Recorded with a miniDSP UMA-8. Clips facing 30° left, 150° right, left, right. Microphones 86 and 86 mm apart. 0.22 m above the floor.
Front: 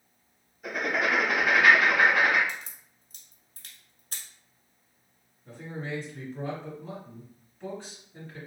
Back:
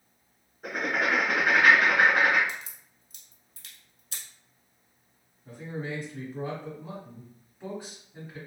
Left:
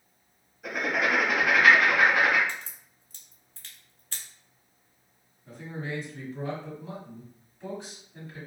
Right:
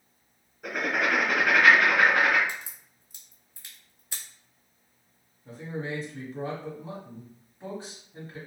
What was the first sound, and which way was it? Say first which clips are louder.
Writing: even, even; 110° right.